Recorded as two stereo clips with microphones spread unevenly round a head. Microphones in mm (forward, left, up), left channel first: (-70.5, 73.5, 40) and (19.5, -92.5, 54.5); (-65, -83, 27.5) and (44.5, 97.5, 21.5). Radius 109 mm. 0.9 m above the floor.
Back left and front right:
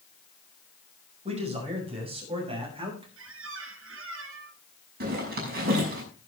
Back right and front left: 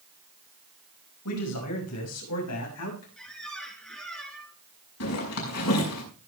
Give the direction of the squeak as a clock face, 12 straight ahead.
1 o'clock.